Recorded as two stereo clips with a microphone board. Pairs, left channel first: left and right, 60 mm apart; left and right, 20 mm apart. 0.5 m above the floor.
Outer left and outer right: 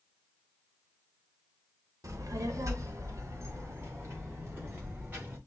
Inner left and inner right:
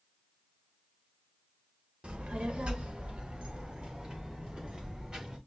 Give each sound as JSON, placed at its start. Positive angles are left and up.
{"t": 2.0, "sound": "a child speaking", "side_deg": -65, "distance_m": 1.0}